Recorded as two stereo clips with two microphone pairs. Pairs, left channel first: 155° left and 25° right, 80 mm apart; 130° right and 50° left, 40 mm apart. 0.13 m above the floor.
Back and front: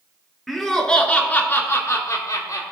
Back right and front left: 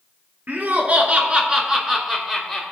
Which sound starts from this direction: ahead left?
Laughter, at 0.5 s.